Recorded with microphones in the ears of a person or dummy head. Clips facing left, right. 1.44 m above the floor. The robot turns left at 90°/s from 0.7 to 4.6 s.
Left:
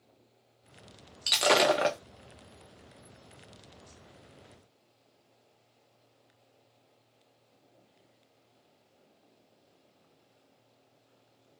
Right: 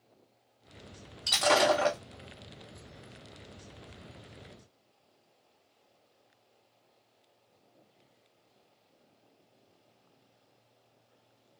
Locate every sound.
1.3 s breaking glass: 20° left (ahead or behind), 0.5 m